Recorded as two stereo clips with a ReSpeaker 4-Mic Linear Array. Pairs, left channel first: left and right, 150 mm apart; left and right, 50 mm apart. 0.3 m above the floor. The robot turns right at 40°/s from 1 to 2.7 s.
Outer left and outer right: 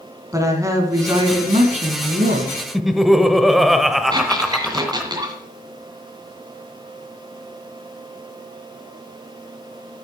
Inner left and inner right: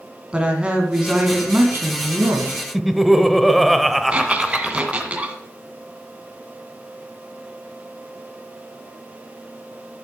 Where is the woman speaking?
160° right, 2.5 m; by 2.6 s 90° right, 2.5 m.